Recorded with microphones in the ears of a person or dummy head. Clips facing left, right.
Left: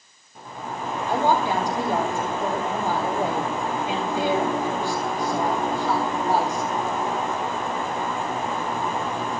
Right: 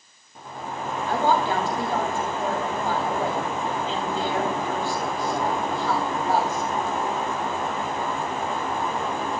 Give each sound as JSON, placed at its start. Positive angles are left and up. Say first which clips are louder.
{"t": 1.1, "sound": "a woman speaking", "louder": "left 1 dB", "side_deg": 10, "distance_m": 2.5}